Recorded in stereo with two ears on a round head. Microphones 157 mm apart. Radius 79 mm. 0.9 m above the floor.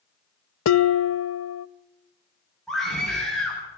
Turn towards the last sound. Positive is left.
turn(degrees=0)  # may be behind; listen again after turning